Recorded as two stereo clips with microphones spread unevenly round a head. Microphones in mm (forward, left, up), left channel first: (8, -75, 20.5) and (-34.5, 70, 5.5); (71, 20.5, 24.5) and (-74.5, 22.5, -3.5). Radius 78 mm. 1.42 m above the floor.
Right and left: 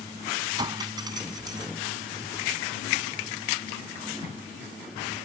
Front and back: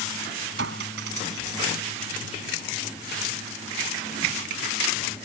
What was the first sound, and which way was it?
A clink, 170° left.